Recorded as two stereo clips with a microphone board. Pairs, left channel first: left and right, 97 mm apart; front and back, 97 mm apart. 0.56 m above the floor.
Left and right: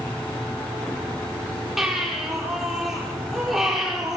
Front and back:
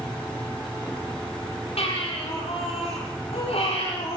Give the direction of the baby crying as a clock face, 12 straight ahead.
12 o'clock.